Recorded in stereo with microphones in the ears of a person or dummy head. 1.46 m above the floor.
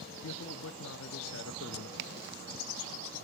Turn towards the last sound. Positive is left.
turn(degrees=-60)  # may be behind; listen again after turning